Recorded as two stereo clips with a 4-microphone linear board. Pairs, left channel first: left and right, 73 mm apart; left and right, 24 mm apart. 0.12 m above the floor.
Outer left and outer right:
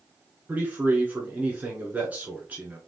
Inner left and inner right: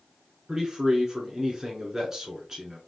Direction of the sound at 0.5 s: 20° right (ahead or behind).